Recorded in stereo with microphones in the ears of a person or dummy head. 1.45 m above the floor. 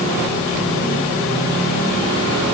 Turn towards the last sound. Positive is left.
No sound to turn to.